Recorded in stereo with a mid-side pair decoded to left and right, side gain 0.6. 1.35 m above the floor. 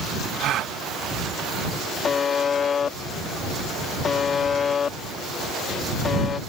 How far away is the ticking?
I don't hear ticking.